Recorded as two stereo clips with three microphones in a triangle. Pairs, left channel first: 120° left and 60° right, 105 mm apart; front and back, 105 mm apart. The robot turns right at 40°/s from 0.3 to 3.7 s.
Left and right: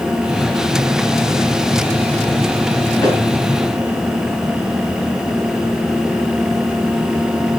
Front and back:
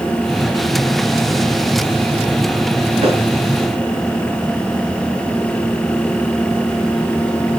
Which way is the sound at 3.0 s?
170° left.